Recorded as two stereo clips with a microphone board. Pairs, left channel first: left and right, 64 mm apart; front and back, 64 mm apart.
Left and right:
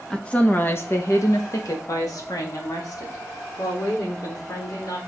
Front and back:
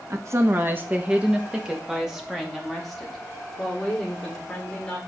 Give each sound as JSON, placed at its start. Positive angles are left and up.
{"t": 0.1, "sound": "a woman speaking", "azimuth_deg": 165, "distance_m": 1.0}